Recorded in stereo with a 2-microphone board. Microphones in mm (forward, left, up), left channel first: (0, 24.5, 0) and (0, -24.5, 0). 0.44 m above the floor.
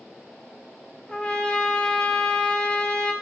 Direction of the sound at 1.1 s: 20° left (ahead or behind).